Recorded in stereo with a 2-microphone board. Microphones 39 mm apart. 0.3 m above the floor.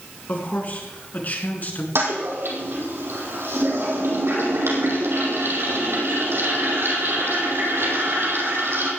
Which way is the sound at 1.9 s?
85° right.